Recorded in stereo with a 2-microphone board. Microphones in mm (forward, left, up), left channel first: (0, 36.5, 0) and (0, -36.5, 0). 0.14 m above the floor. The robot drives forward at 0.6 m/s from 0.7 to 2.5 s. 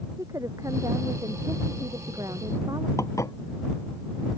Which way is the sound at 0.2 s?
50° right (ahead or behind).